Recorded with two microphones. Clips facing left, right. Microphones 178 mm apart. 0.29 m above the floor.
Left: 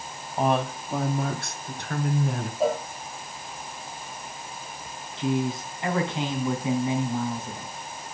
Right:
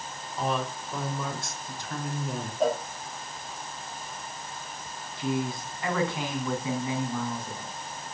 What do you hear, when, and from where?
0.4 s a woman speaking: 55° left (ahead or behind), 2 m; by 2.5 s 60° left (ahead or behind), 3.5 m
2.6 s a cowbell: 5° left (ahead or behind), 3.5 m
5.2 s a man speaking: 20° left (ahead or behind), 3.5 m